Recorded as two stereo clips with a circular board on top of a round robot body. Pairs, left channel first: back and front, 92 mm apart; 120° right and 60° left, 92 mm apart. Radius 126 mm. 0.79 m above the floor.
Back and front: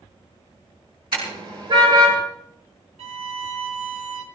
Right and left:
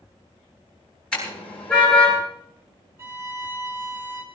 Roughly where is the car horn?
Ahead right.